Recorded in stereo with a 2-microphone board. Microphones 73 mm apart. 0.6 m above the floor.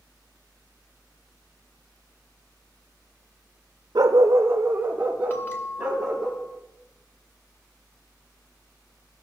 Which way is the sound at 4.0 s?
65° right (ahead or behind).